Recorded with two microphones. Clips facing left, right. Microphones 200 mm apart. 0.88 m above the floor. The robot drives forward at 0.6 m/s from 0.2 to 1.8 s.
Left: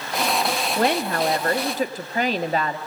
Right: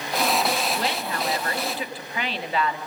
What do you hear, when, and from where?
0.8 s a woman speaking: 55° left (ahead or behind), 1.5 m; by 2.8 s 40° left (ahead or behind), 1.8 m